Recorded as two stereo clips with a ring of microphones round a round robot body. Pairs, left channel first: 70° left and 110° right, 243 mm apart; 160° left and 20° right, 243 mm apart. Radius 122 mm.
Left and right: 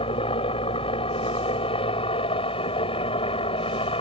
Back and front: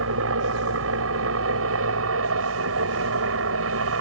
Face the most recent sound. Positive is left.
turn(degrees=0)